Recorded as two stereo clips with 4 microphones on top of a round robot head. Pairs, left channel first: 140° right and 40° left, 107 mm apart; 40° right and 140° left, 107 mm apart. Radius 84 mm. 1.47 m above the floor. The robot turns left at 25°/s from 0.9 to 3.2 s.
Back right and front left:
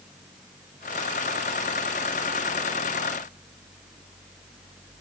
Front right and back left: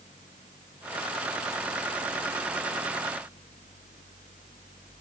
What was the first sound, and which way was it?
Only background noise.